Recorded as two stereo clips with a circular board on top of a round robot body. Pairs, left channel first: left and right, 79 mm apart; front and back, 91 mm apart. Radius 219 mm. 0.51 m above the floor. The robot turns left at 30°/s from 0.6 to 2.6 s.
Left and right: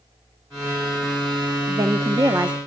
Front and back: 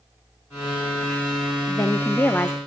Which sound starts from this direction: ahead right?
A woman speaking, at 1.7 s.